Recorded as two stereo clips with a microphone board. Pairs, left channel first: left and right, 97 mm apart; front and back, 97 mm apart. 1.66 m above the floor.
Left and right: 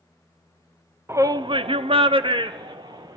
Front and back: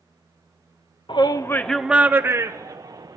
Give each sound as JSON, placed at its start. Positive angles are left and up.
{"t": 1.1, "sound": "a shout", "azimuth_deg": -30, "distance_m": 0.7}